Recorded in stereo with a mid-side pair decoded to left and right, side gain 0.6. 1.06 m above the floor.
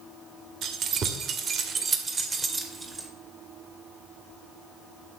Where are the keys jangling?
55° right, 2 m; by 3.1 s 15° right, 2.5 m.